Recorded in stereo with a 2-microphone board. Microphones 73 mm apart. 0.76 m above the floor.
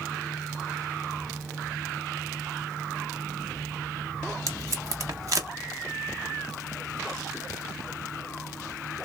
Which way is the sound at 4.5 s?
50° right (ahead or behind).